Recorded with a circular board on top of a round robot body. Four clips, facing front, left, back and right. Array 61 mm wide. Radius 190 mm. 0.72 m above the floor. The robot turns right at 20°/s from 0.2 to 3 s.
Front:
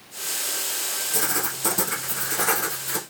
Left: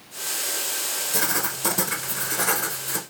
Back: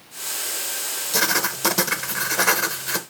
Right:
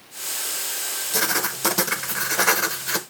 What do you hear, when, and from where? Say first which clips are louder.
1.1 s writing: right 3 dB, back 7 dB; 160° right, 0.9 m; by 3.0 s 120° right, 0.9 m